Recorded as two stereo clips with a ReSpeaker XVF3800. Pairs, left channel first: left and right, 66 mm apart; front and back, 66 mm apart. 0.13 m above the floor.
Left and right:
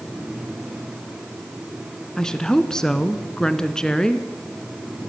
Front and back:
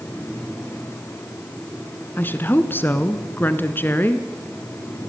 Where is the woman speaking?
15° left, 1.4 m.